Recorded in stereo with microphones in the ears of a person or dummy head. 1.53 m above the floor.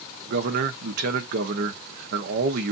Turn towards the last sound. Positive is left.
turn(degrees=-60)  # may be behind; listen again after turning